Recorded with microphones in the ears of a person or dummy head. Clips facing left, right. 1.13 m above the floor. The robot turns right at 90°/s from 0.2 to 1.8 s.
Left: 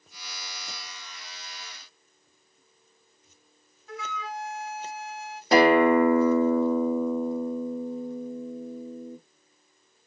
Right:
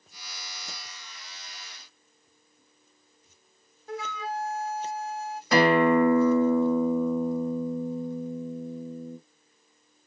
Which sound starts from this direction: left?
A guitar, at 5.5 s.